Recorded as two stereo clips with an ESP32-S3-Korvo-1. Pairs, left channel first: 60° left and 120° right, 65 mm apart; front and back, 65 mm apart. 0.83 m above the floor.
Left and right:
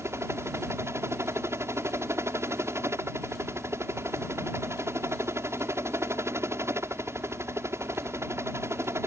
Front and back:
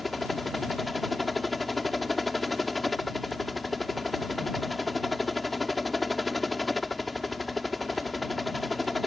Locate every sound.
0.0 s a helicopter: 90° right